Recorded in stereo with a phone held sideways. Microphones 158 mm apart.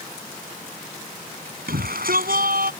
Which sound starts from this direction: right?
A shout, at 1.7 s.